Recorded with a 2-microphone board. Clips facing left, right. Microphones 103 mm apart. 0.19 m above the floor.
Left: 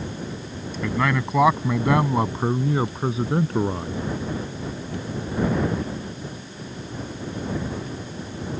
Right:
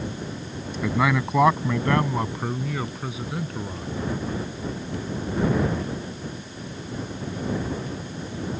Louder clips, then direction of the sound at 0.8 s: Right 1 dB; 10° right (ahead or behind).